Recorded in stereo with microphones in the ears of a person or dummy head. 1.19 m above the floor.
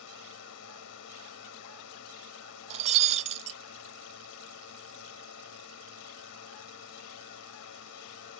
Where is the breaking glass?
35° right (ahead or behind).